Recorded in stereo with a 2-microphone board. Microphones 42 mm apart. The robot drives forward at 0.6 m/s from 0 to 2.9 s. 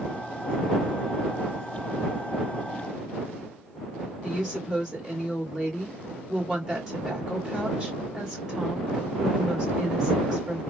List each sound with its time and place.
4.2 s a woman speaking: 15° right (ahead or behind), 2 m